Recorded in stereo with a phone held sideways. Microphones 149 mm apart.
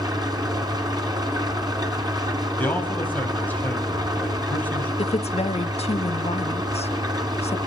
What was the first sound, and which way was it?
An engine running, 30° right (ahead or behind).